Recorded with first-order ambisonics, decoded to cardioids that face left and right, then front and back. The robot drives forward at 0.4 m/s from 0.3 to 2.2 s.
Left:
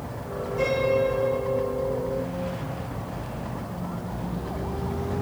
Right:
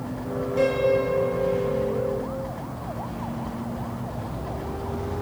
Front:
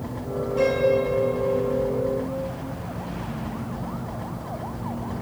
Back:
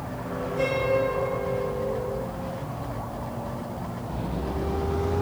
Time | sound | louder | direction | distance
0.6 | a piano | right 1 dB, front 3 dB | 75° right | 4.5 m